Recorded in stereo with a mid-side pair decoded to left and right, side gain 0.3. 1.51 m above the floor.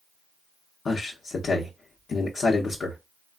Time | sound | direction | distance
0.8 | a man speaking | 70° left | 0.7 m